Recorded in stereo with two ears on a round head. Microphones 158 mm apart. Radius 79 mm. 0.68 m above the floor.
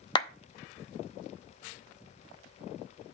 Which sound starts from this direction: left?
A clap, at 0.1 s.